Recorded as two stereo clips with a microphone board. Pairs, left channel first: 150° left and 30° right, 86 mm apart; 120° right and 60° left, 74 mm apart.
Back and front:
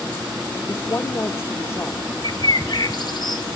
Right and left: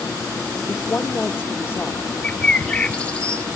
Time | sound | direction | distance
0.7 | a woman speaking | 170° right | 1.2 m
2.2 | a bird | 170° left | 1.1 m